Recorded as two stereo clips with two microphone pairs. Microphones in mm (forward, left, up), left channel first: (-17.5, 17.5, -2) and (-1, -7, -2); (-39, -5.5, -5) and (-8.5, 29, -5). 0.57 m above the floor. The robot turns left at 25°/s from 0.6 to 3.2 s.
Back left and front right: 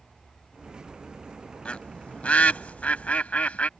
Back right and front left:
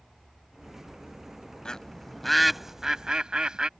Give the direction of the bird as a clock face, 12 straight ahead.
7 o'clock.